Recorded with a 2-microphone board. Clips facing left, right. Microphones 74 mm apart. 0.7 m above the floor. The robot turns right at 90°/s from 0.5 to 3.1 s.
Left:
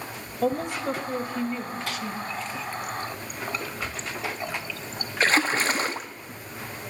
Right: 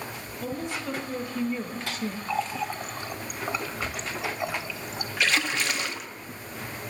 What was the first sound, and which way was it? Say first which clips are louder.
A woman speaking: left 7 dB; 105° left.